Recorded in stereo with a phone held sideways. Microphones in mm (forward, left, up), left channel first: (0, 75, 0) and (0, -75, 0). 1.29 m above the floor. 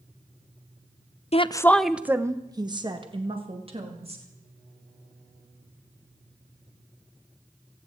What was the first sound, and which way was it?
A woman speaking, 45° left (ahead or behind).